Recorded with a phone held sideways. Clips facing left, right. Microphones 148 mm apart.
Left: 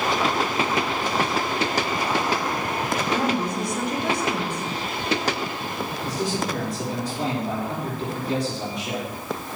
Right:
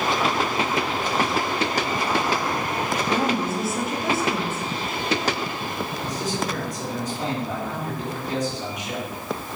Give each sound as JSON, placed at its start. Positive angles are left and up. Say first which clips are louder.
{"t": 3.1, "sound": "a woman speaking", "louder": "right 1 dB", "side_deg": -5, "distance_m": 2.5}
{"t": 6.0, "sound": "a man speaking", "louder": "left 2 dB", "side_deg": 35, "distance_m": 4.0}